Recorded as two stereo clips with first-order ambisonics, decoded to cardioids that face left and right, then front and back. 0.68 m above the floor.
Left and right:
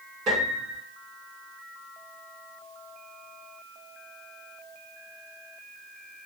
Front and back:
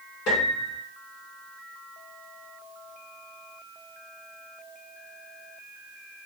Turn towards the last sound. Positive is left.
turn(degrees=-35)